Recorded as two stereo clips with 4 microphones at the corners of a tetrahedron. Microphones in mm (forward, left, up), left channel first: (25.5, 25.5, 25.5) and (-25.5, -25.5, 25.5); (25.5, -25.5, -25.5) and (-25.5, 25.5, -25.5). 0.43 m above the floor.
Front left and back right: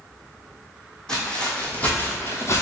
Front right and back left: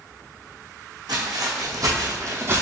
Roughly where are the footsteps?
Behind left.